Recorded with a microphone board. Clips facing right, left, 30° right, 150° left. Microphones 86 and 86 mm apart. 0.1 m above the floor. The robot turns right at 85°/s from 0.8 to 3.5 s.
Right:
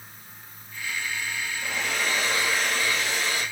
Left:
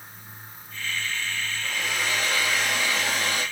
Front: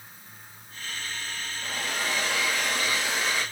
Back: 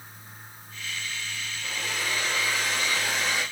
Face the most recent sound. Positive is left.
turn(degrees=80)